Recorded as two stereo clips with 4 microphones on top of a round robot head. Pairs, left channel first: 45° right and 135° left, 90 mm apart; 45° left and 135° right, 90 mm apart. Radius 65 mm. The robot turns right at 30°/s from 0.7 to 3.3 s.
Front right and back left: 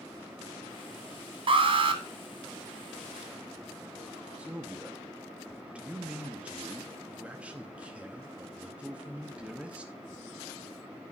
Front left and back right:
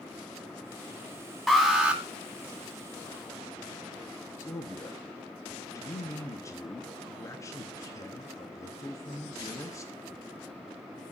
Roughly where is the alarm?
Behind left.